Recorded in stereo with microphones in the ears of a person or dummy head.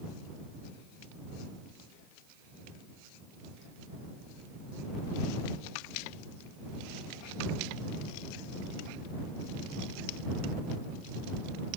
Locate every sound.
Only background noise.